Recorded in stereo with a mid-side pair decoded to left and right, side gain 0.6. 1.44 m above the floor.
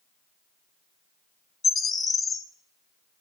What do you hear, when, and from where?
1.6 s a bird: 30° left, 1.0 m